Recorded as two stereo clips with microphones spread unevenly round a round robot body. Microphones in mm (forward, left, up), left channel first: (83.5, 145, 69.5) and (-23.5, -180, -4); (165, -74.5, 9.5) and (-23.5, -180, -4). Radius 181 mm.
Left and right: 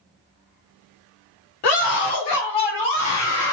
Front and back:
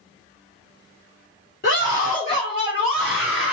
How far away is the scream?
About 1.9 m.